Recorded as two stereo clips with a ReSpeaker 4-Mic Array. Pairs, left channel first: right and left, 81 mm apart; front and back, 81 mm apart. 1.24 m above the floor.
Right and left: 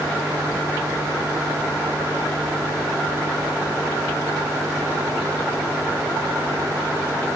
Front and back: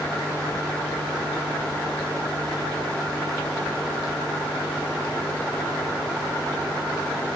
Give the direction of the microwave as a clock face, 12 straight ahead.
No microwave in this recording.